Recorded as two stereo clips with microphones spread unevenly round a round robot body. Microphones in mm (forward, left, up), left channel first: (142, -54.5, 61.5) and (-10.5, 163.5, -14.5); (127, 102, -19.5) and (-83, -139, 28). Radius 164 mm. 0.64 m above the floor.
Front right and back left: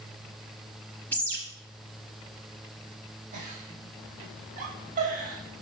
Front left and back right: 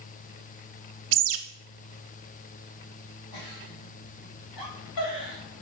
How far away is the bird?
About 0.7 m.